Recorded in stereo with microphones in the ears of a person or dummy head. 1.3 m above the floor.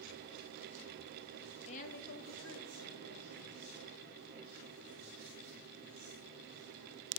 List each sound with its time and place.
1.7 s a woman speaking: 30° left (ahead or behind), 0.5 m; by 3.8 s 65° left (ahead or behind), 1.8 m